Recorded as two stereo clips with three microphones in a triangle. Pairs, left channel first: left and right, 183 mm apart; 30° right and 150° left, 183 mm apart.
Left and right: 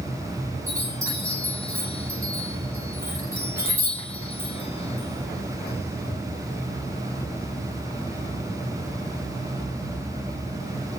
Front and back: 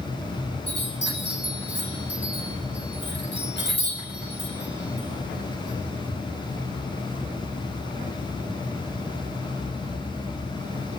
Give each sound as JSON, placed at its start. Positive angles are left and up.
{"t": 0.7, "sound": "a chime", "azimuth_deg": -15, "distance_m": 8.0}